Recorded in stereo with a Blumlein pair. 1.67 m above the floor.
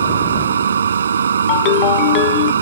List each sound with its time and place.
0.0 s a machine running: 70° right
1.5 s a ringtone: 40° left